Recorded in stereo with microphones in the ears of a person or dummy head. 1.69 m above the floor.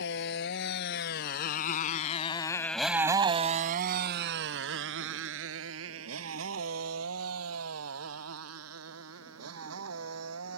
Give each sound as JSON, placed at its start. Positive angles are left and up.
{"t": 0.0, "sound": "a motorcycle", "side_deg": 65}